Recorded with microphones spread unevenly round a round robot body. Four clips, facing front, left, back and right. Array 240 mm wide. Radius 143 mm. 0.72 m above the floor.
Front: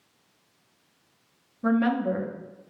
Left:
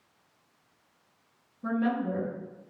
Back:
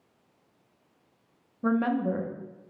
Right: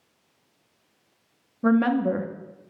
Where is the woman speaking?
75° right, 1.2 m.